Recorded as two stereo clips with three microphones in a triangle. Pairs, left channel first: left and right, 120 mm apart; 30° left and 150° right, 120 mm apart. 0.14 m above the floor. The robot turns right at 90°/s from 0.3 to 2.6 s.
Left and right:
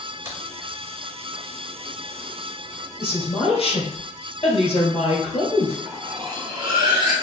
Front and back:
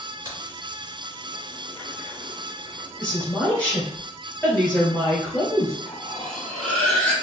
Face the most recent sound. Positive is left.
turn(degrees=-50)